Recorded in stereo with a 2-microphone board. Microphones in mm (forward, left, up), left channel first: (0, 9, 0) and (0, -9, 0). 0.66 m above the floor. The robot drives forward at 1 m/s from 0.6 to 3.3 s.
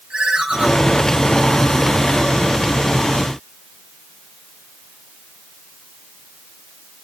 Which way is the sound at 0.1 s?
65° right (ahead or behind).